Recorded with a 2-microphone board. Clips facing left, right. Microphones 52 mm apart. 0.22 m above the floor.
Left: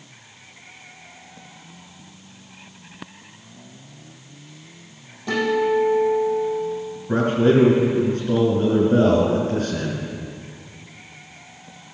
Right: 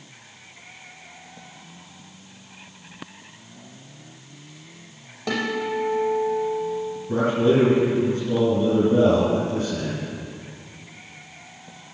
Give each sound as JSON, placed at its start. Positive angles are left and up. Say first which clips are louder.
{"t": 5.3, "sound": "a guitar", "louder": "left 6 dB", "side_deg": -80, "distance_m": 4.5}
{"t": 7.1, "sound": "a man speaking", "louder": "left 2 dB", "side_deg": 50, "distance_m": 3.0}